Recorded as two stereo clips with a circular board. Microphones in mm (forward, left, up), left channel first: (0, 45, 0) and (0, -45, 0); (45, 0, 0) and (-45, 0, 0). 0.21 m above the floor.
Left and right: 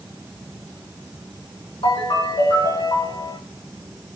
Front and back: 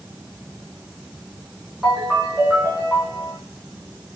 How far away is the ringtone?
About 4.5 m.